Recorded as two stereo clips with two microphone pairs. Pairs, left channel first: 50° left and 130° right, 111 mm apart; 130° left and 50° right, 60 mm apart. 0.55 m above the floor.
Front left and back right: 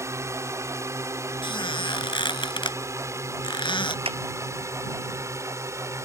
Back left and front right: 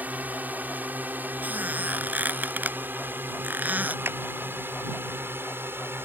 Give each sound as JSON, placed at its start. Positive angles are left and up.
{"t": 0.0, "sound": "a drone", "azimuth_deg": -85}
{"t": 1.4, "sound": "a squeak", "azimuth_deg": 10}
{"t": 4.0, "sound": "a clap", "azimuth_deg": -100}